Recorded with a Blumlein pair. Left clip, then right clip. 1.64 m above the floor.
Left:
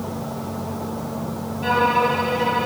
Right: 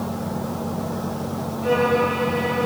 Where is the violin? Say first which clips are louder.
Left 1 dB; 50° left, 1.1 m.